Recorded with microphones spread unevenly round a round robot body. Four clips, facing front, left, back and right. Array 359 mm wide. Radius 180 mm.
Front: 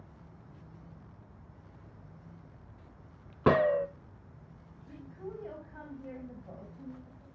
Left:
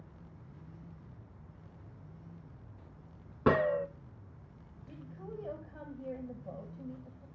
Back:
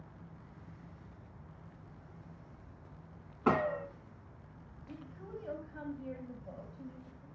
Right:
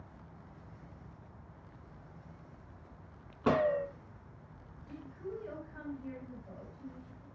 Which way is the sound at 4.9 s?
80° left.